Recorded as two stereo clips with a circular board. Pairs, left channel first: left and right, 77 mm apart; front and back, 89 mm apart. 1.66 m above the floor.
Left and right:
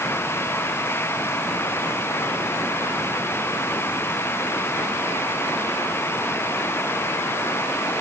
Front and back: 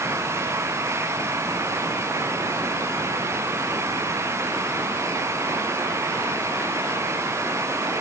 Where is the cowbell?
I don't hear a cowbell.